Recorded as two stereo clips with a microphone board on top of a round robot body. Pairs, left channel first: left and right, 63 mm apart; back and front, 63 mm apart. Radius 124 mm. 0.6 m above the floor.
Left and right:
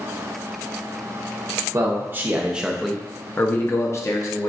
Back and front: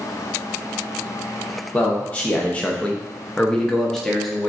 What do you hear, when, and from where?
1.7 s a man speaking: 115° right, 1.0 m; by 4.5 s 95° left, 1.1 m